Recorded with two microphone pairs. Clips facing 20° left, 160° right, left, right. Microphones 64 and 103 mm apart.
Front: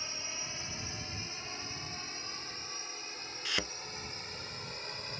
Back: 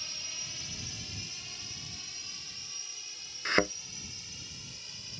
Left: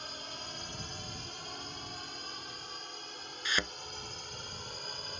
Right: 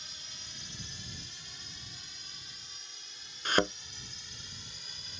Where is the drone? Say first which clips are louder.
Front 4 dB, left 10 dB; 75° left; by 5.2 s 55° left.